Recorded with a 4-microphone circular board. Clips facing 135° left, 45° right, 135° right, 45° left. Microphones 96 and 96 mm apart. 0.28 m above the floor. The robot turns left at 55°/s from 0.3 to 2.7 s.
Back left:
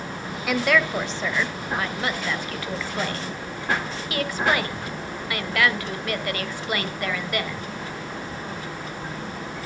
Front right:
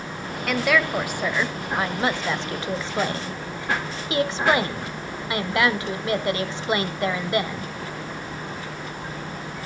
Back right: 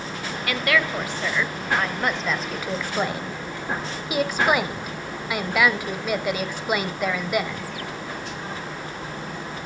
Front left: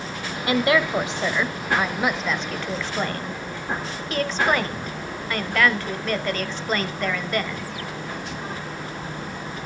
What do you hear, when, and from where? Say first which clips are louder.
0.5 s a woman speaking: even, front left 4 dB; 55° left, 0.9 m; by 7.7 s 70° right, 0.9 m